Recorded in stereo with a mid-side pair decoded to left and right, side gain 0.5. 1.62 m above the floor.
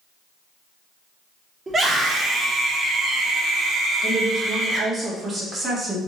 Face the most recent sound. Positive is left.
turn(degrees=-30)